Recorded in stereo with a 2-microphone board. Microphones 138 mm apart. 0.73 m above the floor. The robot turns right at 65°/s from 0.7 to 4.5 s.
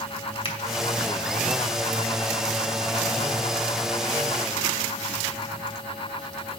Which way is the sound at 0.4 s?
40° left (ahead or behind).